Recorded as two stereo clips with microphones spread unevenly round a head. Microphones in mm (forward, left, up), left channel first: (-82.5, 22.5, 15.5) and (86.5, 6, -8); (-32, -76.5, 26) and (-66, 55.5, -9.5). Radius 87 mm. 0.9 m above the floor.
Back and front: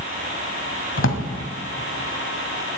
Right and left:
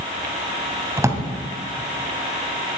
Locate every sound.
1.0 s a drawer: 175° left, 2.5 m